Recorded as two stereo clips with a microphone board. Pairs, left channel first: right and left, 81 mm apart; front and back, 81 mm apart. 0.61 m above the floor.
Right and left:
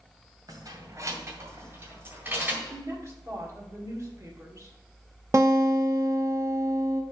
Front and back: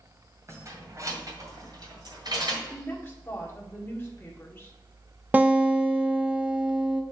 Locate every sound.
0.5 s keys jangling: 130° left, 1.9 m; by 2.6 s 160° left, 2.5 m
2.7 s a woman speaking: 55° left, 1.7 m
5.3 s a guitar: 120° left, 0.7 m